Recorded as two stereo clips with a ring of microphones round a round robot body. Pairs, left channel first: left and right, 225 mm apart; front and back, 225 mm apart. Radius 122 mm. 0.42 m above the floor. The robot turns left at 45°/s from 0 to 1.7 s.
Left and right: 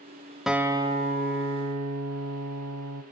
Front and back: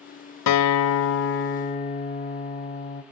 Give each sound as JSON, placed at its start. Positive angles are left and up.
{"t": 0.5, "sound": "a guitar", "azimuth_deg": 0, "distance_m": 0.8}